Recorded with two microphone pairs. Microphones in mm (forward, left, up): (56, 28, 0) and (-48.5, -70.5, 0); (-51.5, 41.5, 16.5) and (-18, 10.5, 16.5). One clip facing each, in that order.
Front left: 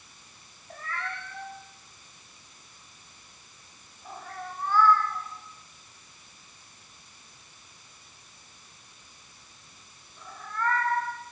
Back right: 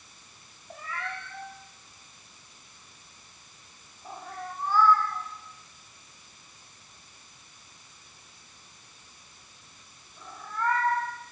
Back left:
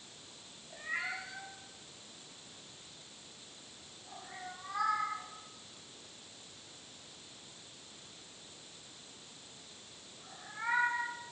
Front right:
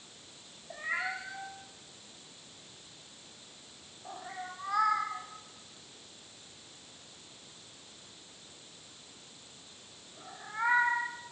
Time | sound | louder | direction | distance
0.7 | a cat meowing | even, front right 4 dB | 55° right | 5 m